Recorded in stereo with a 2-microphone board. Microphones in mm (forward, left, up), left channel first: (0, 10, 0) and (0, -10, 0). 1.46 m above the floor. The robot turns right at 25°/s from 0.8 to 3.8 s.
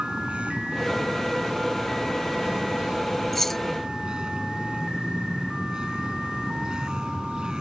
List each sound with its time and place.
0.0 s a vehicle: 115° right; by 7.6 s 40° right
3.3 s keys jangling: 10° left (ahead or behind); by 3.6 s 15° left (ahead or behind)